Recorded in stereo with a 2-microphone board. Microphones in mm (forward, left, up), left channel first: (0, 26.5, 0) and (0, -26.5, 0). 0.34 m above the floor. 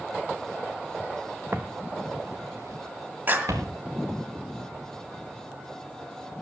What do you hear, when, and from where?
1.5 s footsteps: 40° right (ahead or behind), 1.1 m; by 3.8 s 80° right, 3 m
3.3 s a clap: 40° right (ahead or behind), 1.9 m